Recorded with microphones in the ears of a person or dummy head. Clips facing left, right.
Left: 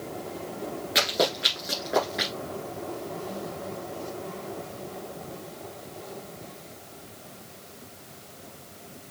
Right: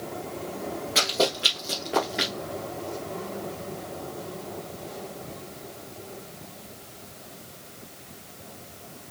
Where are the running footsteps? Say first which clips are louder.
Even; 15° left (ahead or behind), 1.9 m; by 2.3 s centre (ahead or behind), 1.9 m.